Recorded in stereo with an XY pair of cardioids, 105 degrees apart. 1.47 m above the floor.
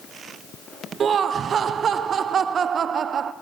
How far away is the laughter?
About 0.6 m.